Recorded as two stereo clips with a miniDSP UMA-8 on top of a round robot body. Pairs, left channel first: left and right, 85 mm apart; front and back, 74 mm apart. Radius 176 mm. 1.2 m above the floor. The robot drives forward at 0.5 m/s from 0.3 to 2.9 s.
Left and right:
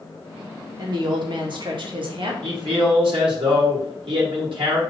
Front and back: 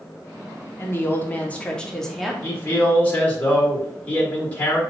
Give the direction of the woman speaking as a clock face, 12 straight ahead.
2 o'clock.